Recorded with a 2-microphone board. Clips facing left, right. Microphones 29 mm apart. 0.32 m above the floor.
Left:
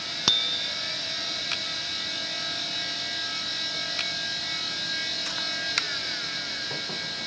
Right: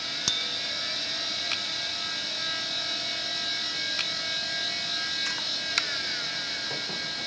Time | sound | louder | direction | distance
0.3 | a bicycle bell | left 7 dB | 30° left (ahead or behind) | ?